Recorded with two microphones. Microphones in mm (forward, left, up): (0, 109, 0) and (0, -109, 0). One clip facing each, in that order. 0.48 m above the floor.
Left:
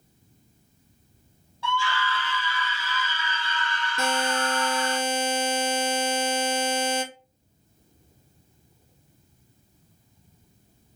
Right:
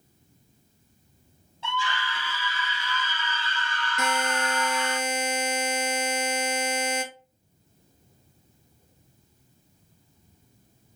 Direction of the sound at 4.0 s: 30° left (ahead or behind).